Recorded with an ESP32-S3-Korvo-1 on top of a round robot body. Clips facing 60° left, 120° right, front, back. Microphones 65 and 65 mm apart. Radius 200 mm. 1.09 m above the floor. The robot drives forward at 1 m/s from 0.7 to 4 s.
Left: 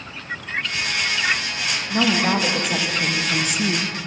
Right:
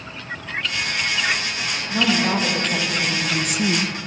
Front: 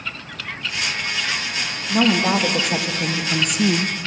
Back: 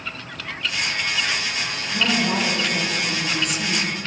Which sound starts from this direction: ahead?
A woman speaking, at 1.9 s.